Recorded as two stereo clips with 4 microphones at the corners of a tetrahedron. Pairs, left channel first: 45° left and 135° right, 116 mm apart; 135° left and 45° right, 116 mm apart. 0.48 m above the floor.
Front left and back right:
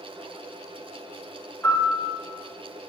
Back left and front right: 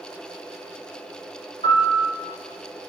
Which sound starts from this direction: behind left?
A piano, at 1.6 s.